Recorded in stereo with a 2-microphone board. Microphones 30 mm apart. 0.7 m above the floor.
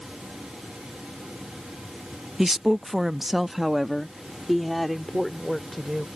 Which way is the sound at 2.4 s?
10° right (ahead or behind).